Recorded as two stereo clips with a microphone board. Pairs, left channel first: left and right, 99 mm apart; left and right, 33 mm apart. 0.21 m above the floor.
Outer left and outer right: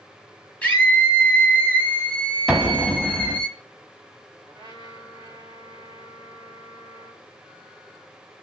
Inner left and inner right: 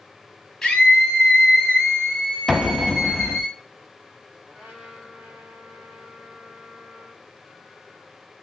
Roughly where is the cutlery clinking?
I don't hear cutlery clinking.